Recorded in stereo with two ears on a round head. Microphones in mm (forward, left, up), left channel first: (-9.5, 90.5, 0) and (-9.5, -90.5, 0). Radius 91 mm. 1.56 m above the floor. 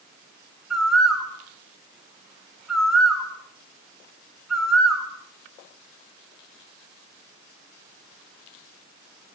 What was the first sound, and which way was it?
A bird, centre (ahead or behind).